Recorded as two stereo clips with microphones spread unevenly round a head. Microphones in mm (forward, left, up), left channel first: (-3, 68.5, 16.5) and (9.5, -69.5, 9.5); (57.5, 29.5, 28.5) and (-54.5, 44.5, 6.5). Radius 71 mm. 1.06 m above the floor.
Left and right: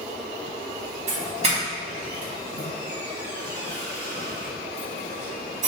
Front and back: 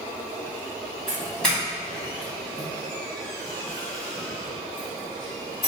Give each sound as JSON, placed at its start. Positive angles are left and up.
{"t": 1.1, "sound": "a doorbell", "azimuth_deg": -105, "distance_m": 1.6}